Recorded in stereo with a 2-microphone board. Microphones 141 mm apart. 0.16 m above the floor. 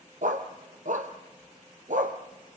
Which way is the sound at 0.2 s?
70° right (ahead or behind).